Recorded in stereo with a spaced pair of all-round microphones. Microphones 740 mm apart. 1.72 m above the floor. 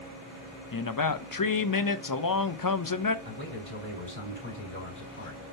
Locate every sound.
0.7 s a man speaking: 30° left (ahead or behind), 0.6 m
3.2 s a man speaking: 15° left (ahead or behind), 5 m